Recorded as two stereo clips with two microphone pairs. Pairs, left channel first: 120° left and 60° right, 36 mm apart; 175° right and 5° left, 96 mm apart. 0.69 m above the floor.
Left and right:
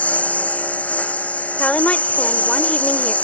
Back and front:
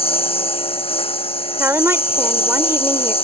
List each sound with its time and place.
0.0 s a lawn mower: 170° left
1.6 s a woman speaking: 65° left